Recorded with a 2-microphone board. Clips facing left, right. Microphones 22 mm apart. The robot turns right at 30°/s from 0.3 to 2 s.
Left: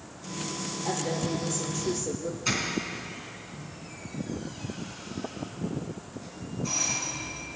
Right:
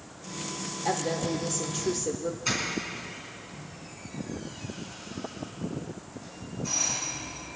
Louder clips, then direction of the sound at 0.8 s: Right 2 dB; 115° right.